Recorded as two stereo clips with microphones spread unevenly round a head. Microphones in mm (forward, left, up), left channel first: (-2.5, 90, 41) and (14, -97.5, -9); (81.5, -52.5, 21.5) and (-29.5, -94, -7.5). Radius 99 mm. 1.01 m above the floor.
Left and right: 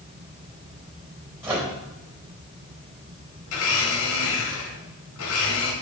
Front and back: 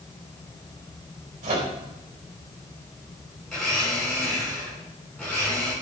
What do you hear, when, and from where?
1.4 s a microwave: 160° right, 4.5 m
3.5 s a blender: 105° left, 5 m